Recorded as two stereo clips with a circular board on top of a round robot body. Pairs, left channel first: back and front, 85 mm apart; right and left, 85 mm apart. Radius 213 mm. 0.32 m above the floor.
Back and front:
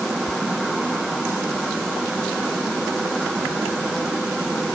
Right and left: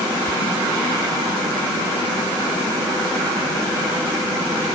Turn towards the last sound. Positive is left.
No sound to turn to.